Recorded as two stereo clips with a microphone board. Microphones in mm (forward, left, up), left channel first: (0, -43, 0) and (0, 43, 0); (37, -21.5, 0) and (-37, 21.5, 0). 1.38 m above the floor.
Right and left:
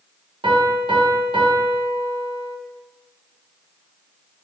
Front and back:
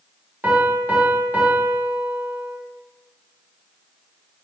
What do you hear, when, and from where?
0.4 s a piano: 80° left, 0.5 m